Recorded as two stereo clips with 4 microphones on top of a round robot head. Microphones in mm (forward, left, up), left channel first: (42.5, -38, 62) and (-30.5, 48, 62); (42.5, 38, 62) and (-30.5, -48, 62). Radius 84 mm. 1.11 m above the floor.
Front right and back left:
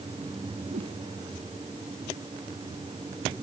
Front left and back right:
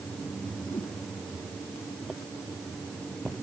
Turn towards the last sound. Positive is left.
turn(degrees=125)